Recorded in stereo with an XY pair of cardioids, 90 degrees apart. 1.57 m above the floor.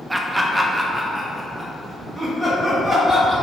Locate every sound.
0.1 s laughter: 15° right, 0.6 m; by 3.3 s 5° right, 2.5 m